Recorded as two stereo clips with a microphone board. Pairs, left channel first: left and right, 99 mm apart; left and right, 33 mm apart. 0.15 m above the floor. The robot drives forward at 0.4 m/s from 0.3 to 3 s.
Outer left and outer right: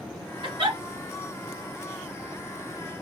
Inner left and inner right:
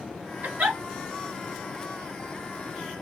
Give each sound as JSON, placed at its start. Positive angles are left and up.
{"t": 0.4, "sound": "a giggle", "side_deg": -55, "distance_m": 2.5}